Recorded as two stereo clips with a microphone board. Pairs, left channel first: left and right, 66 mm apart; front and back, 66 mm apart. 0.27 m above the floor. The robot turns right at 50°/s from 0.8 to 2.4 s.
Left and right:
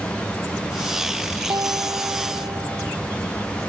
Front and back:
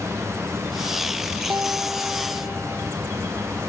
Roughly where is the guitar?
Behind right.